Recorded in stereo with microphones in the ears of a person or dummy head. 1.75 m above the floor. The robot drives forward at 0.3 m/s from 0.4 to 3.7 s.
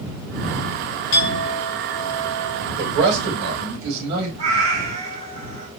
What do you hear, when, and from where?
1.1 s a clink: 60° left (ahead or behind), 1.9 m; by 2.7 s 55° left (ahead or behind), 2 m
2.8 s a man speaking: 60° right (ahead or behind), 2.5 m; by 4.3 s 65° right (ahead or behind), 2.5 m
4.4 s a cat meowing: 35° right (ahead or behind), 1.9 m